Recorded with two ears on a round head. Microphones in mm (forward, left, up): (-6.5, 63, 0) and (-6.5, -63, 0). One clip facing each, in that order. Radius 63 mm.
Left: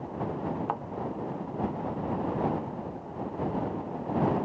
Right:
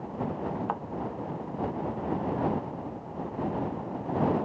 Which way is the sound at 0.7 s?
Centre (ahead or behind).